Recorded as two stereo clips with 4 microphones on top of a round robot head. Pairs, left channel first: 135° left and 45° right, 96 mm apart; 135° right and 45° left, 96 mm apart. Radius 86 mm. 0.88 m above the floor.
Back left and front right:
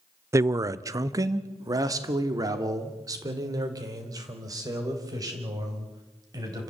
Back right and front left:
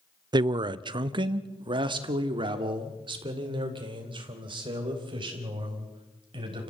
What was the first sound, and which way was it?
A man speaking, 10° left.